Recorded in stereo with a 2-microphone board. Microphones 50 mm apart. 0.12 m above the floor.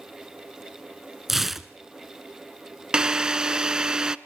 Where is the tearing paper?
5° right (ahead or behind), 0.7 m.